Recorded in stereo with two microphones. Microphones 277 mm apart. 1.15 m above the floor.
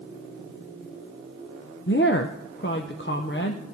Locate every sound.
1.9 s a woman speaking: 45° left (ahead or behind), 0.6 m